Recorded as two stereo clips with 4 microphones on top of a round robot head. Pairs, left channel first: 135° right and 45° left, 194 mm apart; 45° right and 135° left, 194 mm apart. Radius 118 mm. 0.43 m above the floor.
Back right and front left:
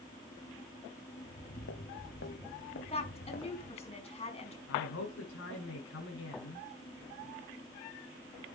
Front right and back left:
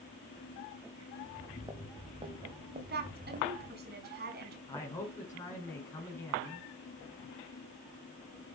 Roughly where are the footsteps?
Behind right.